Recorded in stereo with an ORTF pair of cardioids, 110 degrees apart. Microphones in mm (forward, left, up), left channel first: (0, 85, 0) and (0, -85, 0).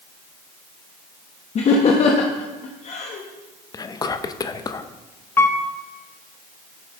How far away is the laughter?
About 1.0 m.